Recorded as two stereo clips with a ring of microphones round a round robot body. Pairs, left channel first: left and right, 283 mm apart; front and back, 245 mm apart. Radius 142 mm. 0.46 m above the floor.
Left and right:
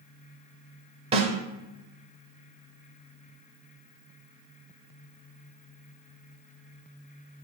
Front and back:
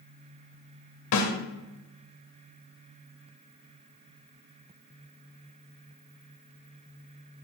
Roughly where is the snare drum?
Ahead.